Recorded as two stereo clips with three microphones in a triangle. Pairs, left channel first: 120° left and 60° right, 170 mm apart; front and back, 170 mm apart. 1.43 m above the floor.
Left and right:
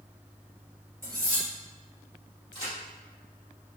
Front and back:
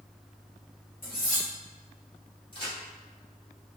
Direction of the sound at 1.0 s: 15° left.